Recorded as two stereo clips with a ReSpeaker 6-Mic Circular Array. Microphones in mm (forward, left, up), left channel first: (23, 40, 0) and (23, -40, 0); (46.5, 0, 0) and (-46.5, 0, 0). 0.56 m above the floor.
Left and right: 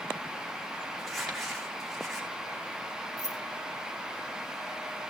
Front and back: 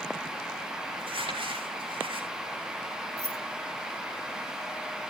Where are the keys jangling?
130° right, 0.9 m.